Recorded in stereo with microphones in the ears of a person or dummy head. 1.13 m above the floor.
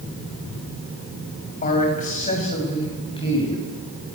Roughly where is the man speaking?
Left.